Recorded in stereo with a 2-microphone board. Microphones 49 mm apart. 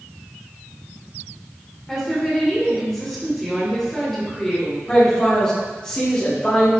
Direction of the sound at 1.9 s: 10° left (ahead or behind).